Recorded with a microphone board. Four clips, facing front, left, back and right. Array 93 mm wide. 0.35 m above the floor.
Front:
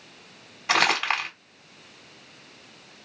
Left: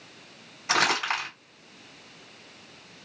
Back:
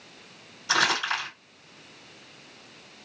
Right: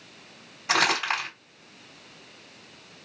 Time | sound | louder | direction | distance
0.7 | crumpling | right 1 dB, front 2 dB | 5° right | 1.9 m